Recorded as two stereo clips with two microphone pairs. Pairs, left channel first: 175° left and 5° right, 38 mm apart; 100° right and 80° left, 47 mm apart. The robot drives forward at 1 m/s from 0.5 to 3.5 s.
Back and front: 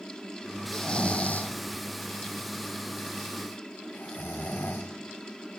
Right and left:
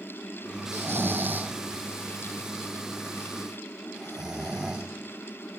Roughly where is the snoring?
Left.